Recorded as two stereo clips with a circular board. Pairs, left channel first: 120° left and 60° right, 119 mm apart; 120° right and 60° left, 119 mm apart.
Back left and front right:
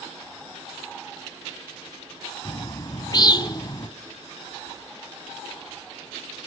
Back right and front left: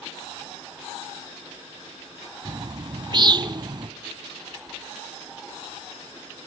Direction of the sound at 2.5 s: 85° left.